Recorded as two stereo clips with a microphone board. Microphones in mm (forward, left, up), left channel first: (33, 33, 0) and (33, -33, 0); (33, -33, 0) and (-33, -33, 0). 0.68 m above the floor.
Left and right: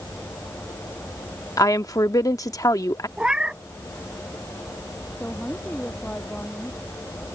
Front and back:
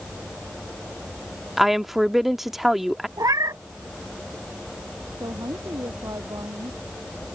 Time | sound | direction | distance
1.6 | a woman speaking | 95° left | ?
3.2 | a cat meowing | 165° right | ?
5.2 | a woman speaking | 160° left | ?